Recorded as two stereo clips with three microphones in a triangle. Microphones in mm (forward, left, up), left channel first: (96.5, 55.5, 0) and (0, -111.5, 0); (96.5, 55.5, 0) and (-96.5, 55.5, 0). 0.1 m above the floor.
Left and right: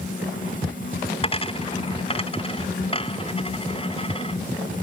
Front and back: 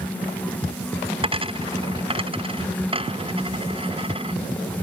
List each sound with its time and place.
1.2 s a dropped coin: 120° left